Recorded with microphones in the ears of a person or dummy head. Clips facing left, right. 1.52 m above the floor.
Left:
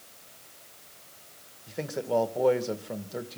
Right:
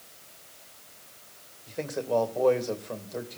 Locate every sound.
1.7 s a man speaking: 10° left (ahead or behind), 1.9 m